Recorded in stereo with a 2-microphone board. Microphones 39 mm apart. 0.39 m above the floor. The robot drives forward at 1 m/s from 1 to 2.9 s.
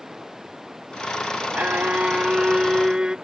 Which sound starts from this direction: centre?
Running water, at 0.0 s.